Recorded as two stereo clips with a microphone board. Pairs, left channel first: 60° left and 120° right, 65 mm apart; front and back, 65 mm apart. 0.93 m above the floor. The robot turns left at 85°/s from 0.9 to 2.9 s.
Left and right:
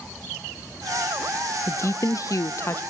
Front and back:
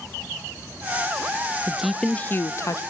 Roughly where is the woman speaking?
Left.